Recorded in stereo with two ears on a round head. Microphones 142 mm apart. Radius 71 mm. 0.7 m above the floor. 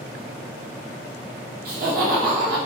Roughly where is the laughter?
Right.